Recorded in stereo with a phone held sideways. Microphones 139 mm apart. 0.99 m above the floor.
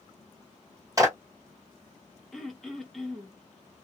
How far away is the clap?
About 1.6 m.